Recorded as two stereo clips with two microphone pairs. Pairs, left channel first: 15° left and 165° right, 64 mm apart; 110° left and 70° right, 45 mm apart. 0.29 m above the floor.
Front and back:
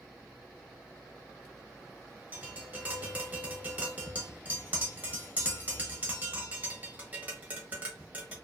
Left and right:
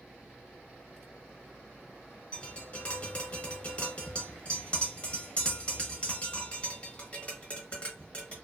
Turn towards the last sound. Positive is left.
turn(degrees=155)